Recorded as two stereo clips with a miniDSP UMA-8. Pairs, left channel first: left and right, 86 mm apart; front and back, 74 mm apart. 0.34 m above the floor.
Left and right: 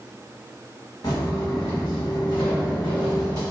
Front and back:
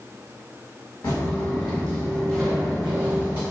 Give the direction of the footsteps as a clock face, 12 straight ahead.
10 o'clock.